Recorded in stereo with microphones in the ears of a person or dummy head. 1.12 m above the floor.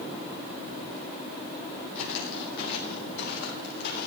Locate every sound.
1.9 s footsteps: 75° left (ahead or behind), 3.5 m; by 4.1 s 70° left (ahead or behind), 4.5 m